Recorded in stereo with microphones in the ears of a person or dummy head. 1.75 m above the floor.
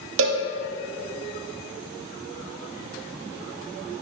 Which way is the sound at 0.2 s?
75° right (ahead or behind).